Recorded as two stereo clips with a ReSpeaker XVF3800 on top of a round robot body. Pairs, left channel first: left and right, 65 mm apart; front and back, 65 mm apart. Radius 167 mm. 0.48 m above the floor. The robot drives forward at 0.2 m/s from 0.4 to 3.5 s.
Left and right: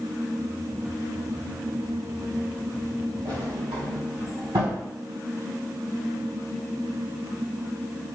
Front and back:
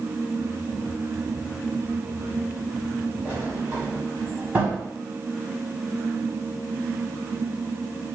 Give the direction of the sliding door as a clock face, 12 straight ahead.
4 o'clock.